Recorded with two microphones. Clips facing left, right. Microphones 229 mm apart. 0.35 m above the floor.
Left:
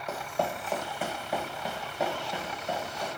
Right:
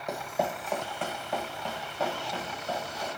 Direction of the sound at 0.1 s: 15° right (ahead or behind).